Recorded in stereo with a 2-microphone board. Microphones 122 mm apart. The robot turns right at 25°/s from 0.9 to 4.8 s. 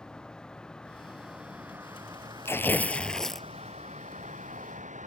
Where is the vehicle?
175° left; by 5.1 s 90° right.